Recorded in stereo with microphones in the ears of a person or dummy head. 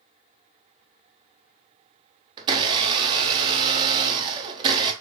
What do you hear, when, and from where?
2.4 s a blender: 25° right (ahead or behind), 0.8 m